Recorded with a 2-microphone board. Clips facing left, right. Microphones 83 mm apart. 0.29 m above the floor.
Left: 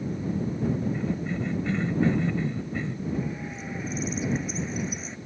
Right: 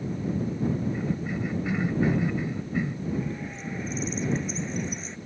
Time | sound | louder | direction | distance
0.9 | a cough | left 1 dB | 10° right (ahead or behind) | ?
3.1 | a bird | even | 5° left (ahead or behind) | ?